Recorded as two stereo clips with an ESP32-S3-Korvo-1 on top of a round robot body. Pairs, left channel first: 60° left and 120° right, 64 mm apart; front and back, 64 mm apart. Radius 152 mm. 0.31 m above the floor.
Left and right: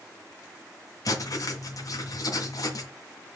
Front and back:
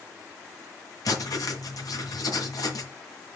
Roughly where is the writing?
Ahead left.